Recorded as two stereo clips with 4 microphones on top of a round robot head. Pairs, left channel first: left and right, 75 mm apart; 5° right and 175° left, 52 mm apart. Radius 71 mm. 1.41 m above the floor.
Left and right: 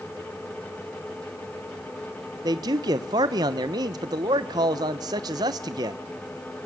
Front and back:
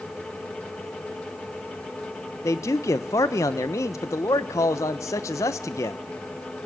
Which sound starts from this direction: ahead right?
A man speaking, at 2.4 s.